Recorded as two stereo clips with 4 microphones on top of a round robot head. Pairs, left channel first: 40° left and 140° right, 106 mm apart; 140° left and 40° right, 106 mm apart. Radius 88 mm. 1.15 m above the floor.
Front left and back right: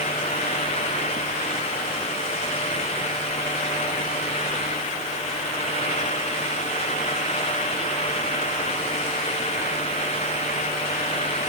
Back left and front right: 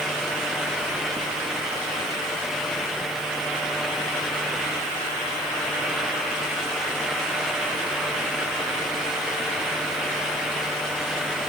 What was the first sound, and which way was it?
Only background noise.